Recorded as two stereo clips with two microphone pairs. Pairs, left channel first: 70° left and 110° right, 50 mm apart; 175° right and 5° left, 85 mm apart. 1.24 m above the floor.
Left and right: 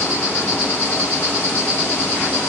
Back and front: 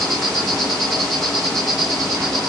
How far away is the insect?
About 2 m.